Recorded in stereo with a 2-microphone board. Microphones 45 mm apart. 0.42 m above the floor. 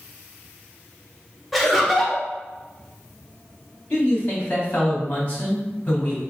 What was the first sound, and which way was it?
Laughter, centre (ahead or behind).